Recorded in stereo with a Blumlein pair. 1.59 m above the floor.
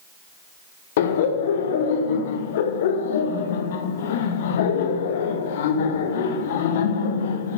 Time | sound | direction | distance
1.0 | laughter | 55° left | 1.3 m